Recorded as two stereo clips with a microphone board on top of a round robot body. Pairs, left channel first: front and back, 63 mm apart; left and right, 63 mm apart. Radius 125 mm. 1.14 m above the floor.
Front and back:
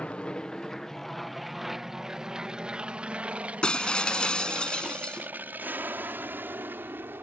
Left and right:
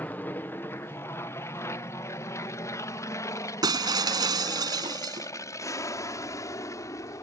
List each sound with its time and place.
0.0 s an aircraft: 60° left; by 7.2 s 125° left
3.6 s breaking glass: 75° right